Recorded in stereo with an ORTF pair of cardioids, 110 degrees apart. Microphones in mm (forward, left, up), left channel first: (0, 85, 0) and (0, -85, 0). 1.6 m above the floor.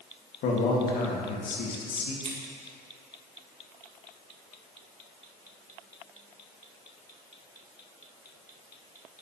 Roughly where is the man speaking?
Ahead left.